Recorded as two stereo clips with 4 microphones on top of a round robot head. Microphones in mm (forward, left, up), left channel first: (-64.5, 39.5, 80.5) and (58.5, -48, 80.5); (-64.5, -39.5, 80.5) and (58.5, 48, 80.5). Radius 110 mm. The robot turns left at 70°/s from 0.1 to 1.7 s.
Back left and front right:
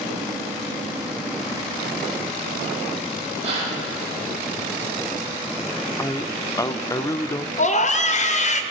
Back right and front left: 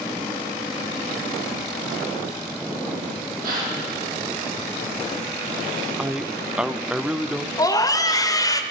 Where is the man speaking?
115° left, 0.9 m.